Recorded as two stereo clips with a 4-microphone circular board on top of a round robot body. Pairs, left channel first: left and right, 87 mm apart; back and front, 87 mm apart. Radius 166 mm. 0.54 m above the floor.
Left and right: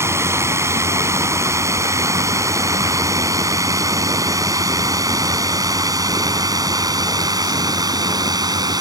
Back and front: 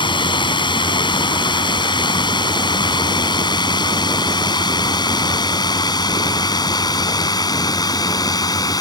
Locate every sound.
0.0 s a drone: 150° right; by 8.8 s 135° right